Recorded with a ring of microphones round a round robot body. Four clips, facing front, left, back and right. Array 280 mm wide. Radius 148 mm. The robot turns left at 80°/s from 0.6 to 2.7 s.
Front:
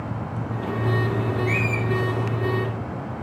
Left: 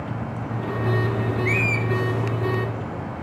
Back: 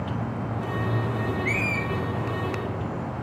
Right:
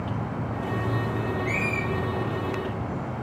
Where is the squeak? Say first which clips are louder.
Left 3 dB, front 3 dB; 120° left, 1.7 m; by 1.8 s 85° left, 1.7 m.